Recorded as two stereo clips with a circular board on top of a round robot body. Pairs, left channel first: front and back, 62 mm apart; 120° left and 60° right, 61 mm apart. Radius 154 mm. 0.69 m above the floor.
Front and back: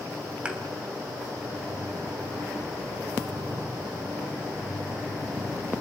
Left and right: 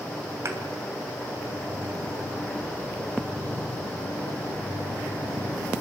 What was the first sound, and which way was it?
A thud, 105° right.